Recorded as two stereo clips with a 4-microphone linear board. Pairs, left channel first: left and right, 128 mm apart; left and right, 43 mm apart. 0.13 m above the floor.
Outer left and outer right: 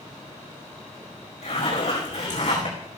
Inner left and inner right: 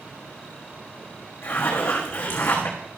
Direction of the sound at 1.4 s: 60° left (ahead or behind).